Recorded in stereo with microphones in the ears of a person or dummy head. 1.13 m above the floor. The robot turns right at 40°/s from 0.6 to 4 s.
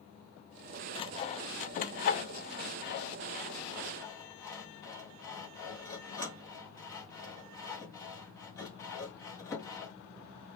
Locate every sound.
0.9 s sawing: 30° left (ahead or behind), 0.6 m; by 9.9 s 15° left (ahead or behind), 0.6 m